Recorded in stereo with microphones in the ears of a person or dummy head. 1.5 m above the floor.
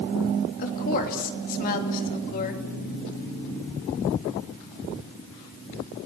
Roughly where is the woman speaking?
Left.